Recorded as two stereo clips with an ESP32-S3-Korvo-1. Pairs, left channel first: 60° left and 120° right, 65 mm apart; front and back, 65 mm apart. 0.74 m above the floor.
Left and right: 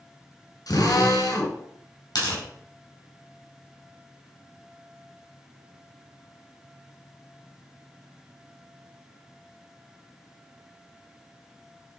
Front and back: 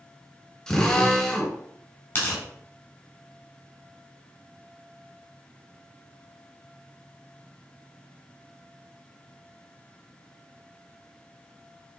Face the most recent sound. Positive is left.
turn(degrees=55)